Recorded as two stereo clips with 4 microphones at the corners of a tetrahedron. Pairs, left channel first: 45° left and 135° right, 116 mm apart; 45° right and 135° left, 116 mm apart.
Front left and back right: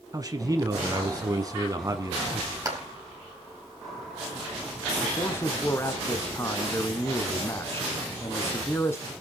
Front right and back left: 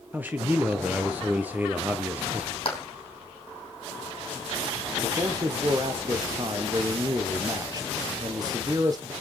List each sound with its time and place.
0.1 s a man speaking: 160° right, 1.3 m
2.6 s a clap: 75° right, 3.5 m
5.0 s a man speaking: 100° left, 1.3 m